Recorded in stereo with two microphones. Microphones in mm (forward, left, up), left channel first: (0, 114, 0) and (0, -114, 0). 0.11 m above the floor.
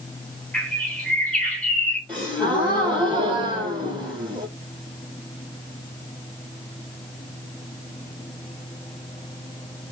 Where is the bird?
5° left (ahead or behind), 1.7 m.